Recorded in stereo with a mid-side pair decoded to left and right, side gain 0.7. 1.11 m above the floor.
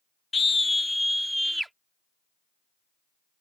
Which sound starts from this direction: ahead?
A scream, at 0.3 s.